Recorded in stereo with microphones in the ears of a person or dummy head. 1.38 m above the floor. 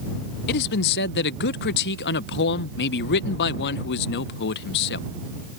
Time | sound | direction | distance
0.5 | a man speaking | 60° left (ahead or behind) | ?